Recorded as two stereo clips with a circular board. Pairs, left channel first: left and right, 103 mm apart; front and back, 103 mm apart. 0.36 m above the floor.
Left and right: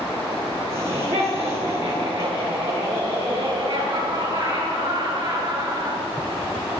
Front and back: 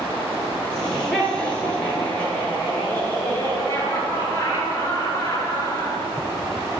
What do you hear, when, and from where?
0.7 s laughter: 85° right, 5.5 m; by 6.1 s 55° right, 5 m